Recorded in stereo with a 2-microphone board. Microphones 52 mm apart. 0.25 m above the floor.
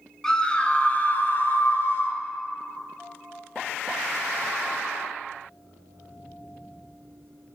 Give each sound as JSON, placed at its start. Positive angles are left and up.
{"t": 0.2, "sound": "a scream", "side_deg": 15, "distance_m": 1.1}